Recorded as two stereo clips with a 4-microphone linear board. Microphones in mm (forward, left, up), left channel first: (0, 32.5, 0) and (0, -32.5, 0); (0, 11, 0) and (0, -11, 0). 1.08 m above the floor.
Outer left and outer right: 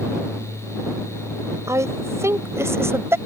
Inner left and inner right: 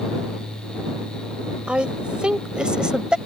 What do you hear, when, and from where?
1.7 s a woman speaking: 50° right (ahead or behind); by 3.2 s 40° right (ahead or behind)